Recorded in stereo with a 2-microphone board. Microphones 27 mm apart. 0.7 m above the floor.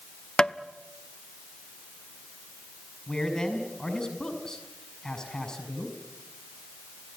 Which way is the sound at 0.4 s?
25° left (ahead or behind).